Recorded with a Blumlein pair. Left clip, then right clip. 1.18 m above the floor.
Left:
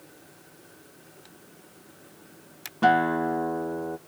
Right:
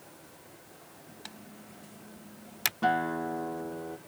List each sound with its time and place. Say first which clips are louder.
1.2 s typing on a keyboard: right 4 dB; 30° right
2.8 s a guitar: left 8 dB; 20° left